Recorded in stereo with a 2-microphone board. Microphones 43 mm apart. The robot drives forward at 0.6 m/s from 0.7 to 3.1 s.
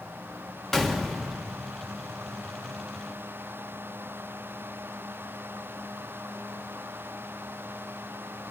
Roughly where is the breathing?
No breathing in this recording.